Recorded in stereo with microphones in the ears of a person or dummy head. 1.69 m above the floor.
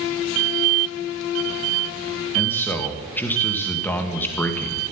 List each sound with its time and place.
2.4 s a man speaking: 10° left (ahead or behind), 1.8 m